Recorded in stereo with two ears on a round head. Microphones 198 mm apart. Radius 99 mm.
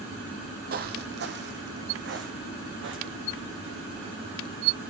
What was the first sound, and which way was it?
Footsteps, 45° right (ahead or behind).